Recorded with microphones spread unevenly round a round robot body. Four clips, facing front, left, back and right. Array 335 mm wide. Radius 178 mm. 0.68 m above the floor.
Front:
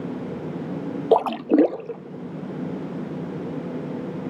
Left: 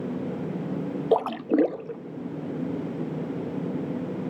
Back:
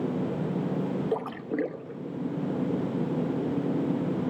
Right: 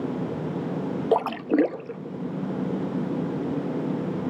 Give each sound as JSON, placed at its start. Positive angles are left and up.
{"t": 1.1, "sound": "a splash", "azimuth_deg": 0, "distance_m": 0.6}